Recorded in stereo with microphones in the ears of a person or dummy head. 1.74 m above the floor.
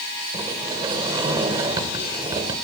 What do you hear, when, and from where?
0.3 s a sliding door: 25° right (ahead or behind), 2 m